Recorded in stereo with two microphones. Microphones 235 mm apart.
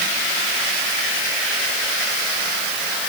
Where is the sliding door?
No sliding door in this recording.